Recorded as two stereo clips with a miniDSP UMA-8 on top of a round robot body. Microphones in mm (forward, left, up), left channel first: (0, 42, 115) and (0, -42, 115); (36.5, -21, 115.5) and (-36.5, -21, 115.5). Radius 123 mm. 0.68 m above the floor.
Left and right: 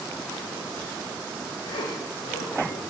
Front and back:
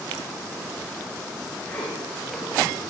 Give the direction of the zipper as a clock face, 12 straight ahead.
10 o'clock.